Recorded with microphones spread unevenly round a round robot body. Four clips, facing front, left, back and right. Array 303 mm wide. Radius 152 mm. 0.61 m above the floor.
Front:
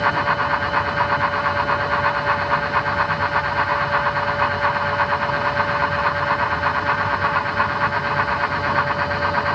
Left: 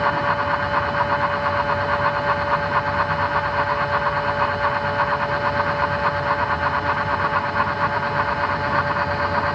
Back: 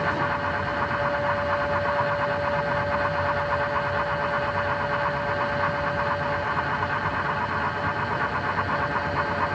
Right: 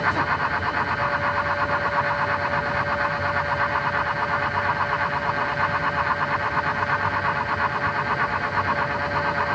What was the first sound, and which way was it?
Only background noise.